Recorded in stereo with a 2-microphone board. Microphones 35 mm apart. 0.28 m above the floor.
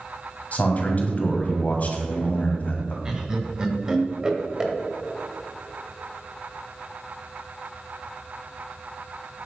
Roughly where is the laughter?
Right.